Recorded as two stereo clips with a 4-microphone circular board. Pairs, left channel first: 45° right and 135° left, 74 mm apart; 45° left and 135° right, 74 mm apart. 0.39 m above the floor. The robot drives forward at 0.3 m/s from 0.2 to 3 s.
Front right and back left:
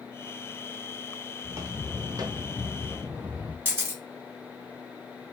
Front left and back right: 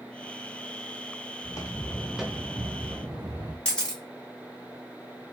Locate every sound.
1.4 s footsteps: 80° left, 0.9 m; by 3.5 s 155° right, 1.4 m
3.6 s a camera shutter: 110° left, 1.1 m